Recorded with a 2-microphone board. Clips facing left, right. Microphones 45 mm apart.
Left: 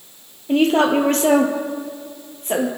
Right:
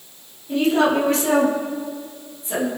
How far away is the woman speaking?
About 3 m.